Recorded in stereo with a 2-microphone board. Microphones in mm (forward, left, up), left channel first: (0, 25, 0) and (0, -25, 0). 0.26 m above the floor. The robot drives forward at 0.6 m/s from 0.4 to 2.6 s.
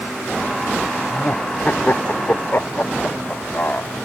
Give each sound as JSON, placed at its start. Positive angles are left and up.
{"t": 1.1, "sound": "laughter", "side_deg": 40}